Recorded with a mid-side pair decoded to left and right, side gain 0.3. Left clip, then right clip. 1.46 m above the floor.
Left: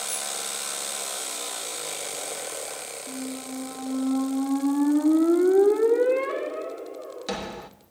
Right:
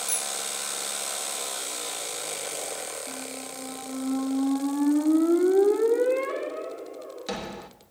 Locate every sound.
0.1 s a bicycle bell: 65° right, 3 m
3.1 s a squeak: 20° left, 3 m